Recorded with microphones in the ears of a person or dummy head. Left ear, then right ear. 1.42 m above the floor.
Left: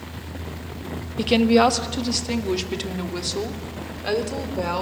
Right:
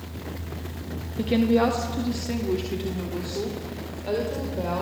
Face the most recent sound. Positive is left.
turn(degrees=70)  # may be behind; listen again after turning